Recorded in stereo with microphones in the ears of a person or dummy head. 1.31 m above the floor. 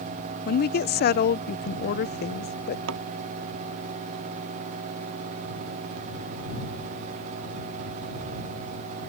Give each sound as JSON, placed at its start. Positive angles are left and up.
{"t": 0.5, "sound": "a woman speaking", "side_deg": 50}
{"t": 2.9, "sound": "a thud", "side_deg": -75}